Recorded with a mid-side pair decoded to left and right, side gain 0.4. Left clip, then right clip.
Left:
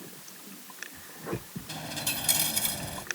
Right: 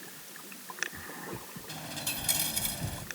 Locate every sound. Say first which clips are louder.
1.7 s a dropped coin: left 4 dB; 30° left